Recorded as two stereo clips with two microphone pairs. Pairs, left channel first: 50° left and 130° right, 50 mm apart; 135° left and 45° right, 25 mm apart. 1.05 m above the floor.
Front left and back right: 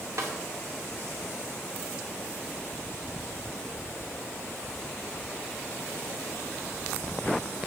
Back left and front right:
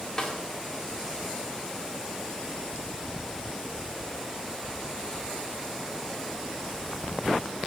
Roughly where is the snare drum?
Behind right.